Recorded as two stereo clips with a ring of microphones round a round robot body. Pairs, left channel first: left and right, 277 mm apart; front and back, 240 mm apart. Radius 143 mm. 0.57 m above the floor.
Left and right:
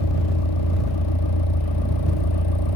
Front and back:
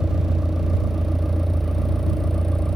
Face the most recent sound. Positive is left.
turn(degrees=90)